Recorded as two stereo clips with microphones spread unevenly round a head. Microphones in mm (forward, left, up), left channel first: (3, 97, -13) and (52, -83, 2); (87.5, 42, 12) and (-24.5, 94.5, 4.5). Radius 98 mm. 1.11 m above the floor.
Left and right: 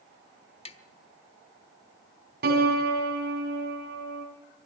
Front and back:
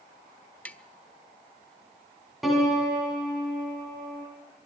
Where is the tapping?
50° left, 1.0 m.